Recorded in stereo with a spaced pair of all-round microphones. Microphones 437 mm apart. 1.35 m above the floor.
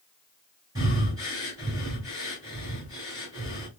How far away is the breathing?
About 3.5 m.